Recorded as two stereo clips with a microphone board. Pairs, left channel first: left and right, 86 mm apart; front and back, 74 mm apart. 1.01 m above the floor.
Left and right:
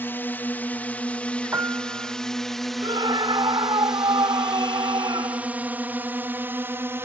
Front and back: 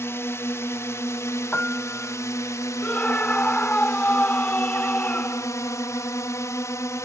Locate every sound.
0.0 s a drone: 35° left; by 7.1 s 35° right
1.5 s a piano: 50° right
2.8 s a scream: 65° right